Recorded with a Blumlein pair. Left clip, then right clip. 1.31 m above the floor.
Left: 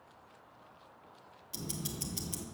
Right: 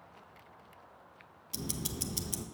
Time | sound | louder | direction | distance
1.5 | ticking | right 2 dB | 15° right | 0.8 m